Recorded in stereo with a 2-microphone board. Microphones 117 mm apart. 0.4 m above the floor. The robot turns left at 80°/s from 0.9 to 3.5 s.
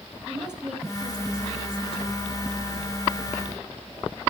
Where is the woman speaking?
170° right, 2.5 m; by 2.2 s 80° left, 2.5 m.